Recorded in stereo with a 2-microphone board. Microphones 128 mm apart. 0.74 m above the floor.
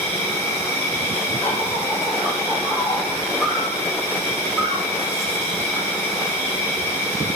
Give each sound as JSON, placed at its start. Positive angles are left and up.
{"t": 0.0, "sound": "an insect", "side_deg": 20, "distance_m": 1.0}